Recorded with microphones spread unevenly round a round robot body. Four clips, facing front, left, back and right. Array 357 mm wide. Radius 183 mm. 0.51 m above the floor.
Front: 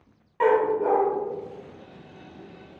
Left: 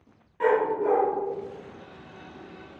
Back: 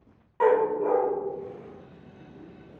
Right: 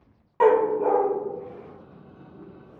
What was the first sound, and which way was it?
A dog barking, 65° right.